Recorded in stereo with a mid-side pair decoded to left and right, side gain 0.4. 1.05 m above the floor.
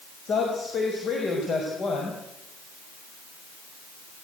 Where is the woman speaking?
60° left, 6 m.